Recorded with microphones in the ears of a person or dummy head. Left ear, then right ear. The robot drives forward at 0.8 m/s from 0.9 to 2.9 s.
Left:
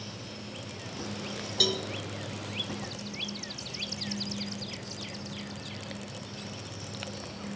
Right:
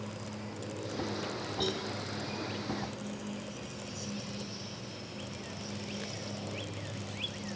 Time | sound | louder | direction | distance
1.6 | a cowbell | left 9 dB | 70° left (ahead or behind) | 1.7 m